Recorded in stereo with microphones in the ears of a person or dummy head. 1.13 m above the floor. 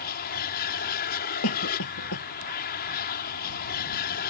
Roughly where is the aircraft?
Left.